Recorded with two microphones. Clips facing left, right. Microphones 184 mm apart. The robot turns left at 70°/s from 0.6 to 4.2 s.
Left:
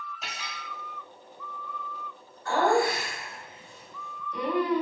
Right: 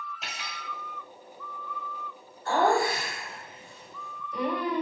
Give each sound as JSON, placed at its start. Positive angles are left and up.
{"t": 0.2, "sound": "cutlery clinking", "side_deg": 0, "distance_m": 0.9}
{"t": 2.5, "sound": "laughter", "azimuth_deg": -50, "distance_m": 1.5}